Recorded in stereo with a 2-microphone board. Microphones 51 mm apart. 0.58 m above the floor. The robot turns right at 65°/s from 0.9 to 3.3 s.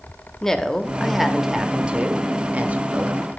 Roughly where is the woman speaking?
Centre.